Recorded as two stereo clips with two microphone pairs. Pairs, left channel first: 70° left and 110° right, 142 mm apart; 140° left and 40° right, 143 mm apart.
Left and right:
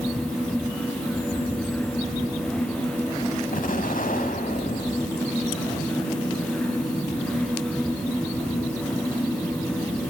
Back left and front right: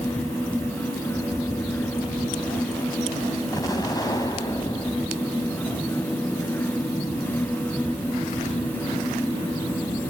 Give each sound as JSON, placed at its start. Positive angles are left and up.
{"t": 3.5, "sound": "an explosion", "azimuth_deg": 75, "distance_m": 4.5}